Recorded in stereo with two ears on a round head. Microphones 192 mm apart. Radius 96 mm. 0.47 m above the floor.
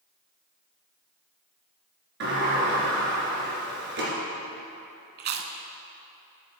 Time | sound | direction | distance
2.2 | a sliding door | 55° right (ahead or behind) | 2 m
5.2 | chewing | 50° right (ahead or behind) | 0.7 m